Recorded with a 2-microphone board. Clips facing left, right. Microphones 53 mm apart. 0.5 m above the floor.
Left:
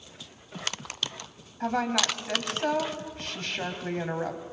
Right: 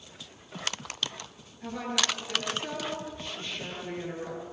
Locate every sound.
1.6 s a woman speaking: 70° left (ahead or behind), 3 m